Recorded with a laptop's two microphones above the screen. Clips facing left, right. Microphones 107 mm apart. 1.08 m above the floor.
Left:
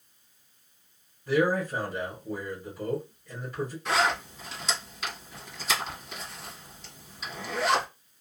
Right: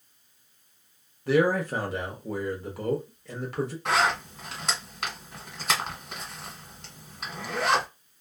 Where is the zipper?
60° right (ahead or behind), 1.6 m.